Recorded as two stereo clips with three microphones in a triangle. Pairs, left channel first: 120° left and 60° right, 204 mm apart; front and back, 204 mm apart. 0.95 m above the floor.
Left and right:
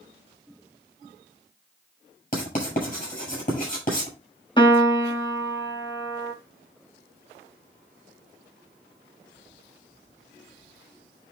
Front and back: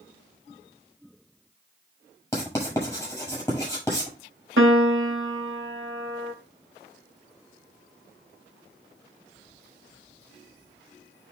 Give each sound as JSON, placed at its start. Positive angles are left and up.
{"t": 2.3, "sound": "writing", "azimuth_deg": 80, "distance_m": 6.5}
{"t": 4.6, "sound": "a piano", "azimuth_deg": -175, "distance_m": 1.4}